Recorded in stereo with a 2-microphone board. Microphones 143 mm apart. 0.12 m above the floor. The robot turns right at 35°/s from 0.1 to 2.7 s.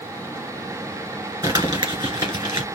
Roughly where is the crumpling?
Right.